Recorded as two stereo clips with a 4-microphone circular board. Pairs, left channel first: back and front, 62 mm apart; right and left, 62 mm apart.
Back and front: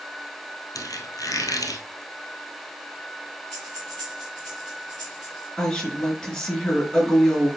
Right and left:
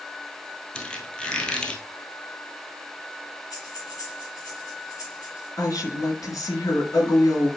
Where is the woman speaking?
105° right, 4 m.